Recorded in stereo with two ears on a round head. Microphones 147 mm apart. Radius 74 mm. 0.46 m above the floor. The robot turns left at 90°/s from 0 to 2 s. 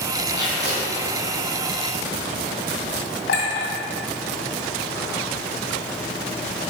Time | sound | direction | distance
0.3 | tape being pulled | 20° right | 2.5 m
3.3 | a clink | 75° left (ahead or behind) | 2.5 m